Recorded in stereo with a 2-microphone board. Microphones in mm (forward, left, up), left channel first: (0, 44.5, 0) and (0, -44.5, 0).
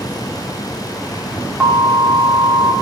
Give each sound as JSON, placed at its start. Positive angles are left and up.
{"t": 1.6, "sound": "an alarm", "side_deg": -10, "distance_m": 2.5}